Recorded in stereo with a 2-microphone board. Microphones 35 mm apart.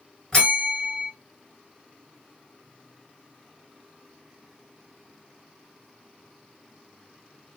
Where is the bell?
15° left (ahead or behind), 2 m.